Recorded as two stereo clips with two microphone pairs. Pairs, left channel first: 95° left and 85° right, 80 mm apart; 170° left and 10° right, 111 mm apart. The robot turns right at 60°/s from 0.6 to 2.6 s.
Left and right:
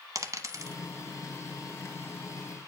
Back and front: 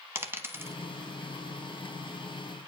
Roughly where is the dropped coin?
Right.